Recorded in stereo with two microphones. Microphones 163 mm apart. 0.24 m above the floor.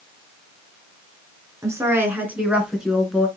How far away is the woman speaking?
About 3 m.